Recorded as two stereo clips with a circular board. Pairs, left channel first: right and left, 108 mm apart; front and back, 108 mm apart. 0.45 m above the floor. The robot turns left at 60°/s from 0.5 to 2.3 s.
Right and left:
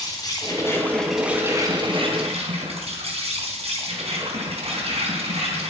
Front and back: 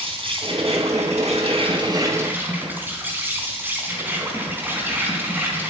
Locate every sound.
0.0 s an insect: 145° right, 3.5 m; by 5.7 s 110° left, 3.5 m